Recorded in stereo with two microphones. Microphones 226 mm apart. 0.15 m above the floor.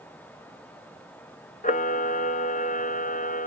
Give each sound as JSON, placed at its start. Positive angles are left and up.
{"t": 1.6, "sound": "a camera shutter", "side_deg": 35, "distance_m": 0.5}